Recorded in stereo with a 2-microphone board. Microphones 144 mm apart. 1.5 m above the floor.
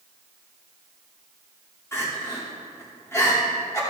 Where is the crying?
20° left (ahead or behind), 2.5 m.